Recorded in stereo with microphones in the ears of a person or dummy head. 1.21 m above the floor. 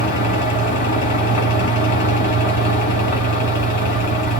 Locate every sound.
0.0 s a fan: 40° left (ahead or behind), 3 m